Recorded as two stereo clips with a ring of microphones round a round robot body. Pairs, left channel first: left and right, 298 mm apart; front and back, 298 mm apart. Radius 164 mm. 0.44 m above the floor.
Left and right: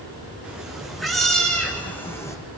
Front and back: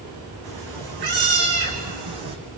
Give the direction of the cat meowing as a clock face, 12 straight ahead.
6 o'clock.